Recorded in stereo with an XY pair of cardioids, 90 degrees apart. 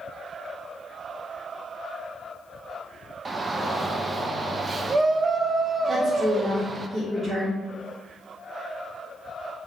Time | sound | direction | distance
3.2 | a shout | 35° right | 0.7 m
5.9 | a woman speaking | 15° right | 2 m